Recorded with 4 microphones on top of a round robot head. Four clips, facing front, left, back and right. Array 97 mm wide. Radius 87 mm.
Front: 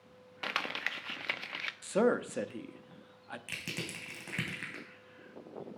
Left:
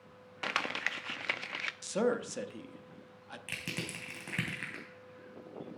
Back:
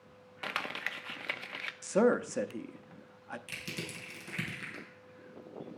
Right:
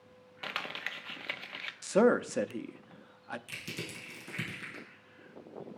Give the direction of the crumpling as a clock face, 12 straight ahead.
10 o'clock.